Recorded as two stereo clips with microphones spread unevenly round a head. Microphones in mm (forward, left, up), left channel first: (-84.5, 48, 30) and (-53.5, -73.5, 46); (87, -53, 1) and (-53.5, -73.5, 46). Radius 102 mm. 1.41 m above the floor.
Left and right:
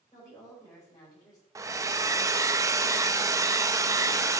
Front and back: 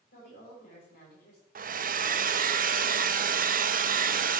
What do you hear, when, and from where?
0.1 s a woman speaking: 35° left, 6 m
1.6 s a hair dryer: 145° right, 1.0 m